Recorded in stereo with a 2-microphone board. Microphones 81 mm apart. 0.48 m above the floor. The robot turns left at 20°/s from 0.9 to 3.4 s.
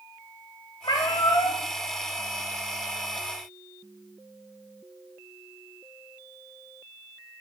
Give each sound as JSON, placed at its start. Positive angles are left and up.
{"t": 0.8, "sound": "a cat meowing", "side_deg": 65, "distance_m": 0.7}